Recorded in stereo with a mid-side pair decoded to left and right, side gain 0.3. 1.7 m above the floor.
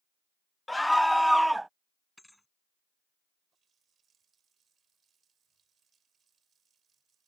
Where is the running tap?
70° right.